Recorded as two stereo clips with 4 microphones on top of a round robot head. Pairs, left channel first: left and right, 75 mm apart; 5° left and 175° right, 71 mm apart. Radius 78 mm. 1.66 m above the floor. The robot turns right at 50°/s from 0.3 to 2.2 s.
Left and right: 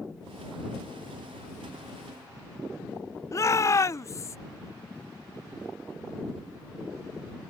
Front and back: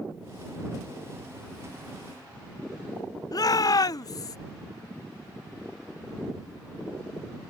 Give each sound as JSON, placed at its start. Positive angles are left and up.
{"t": 3.3, "sound": "a shout", "azimuth_deg": 40}